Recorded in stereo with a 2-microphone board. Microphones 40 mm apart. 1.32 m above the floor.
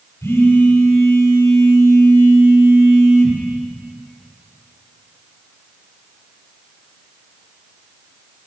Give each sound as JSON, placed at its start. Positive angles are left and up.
{"t": 0.2, "sound": "a phone buzzing", "side_deg": 85, "distance_m": 5.0}